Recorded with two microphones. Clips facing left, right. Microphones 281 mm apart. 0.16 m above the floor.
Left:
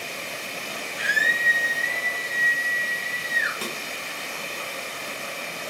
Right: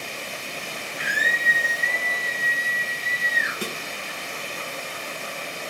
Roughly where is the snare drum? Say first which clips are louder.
Right 3 dB; centre.